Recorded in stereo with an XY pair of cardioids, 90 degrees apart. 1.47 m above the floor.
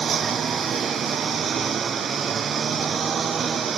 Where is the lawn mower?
55° right.